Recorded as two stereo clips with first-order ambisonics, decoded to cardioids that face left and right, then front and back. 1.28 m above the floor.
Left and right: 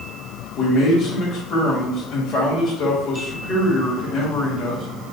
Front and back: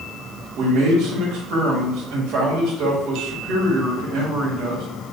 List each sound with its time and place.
0.6 s a man speaking: 150° left, 1.7 m